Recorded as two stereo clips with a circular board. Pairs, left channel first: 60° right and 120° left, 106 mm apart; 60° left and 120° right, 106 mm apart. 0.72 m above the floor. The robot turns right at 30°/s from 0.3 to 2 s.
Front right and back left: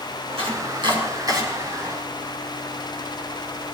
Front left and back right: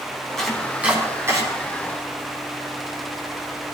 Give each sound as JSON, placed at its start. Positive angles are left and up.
{"t": 0.4, "sound": "chopping", "azimuth_deg": 145, "distance_m": 4.0}